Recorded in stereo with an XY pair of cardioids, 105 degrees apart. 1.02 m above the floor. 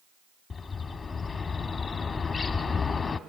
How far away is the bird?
About 1.4 m.